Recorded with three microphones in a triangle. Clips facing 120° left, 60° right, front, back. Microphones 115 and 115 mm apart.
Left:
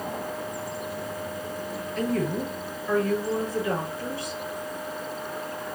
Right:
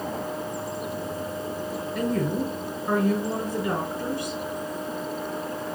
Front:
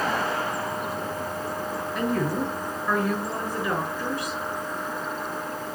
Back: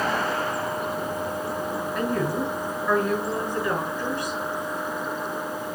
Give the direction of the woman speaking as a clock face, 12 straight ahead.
3 o'clock.